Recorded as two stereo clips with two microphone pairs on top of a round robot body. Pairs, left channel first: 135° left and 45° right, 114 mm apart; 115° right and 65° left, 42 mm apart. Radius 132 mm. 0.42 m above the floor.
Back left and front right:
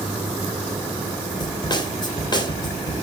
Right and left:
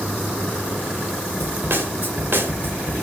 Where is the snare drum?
90° left, 2.5 m.